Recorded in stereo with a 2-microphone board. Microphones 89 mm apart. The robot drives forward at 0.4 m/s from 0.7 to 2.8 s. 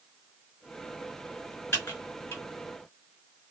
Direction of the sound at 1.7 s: 25° left (ahead or behind).